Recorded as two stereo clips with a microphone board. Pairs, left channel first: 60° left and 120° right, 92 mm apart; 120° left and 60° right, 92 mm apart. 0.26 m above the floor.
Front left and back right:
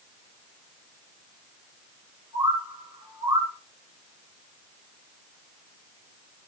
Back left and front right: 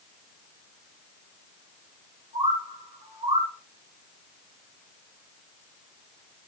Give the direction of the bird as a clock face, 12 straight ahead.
2 o'clock.